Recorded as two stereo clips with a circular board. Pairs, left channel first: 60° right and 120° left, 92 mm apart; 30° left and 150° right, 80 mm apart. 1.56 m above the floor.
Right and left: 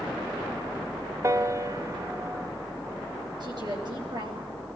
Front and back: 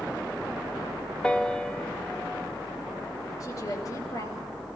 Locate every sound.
1.2 s a piano: 100° left, 1.3 m
3.4 s a woman speaking: 80° left, 9.5 m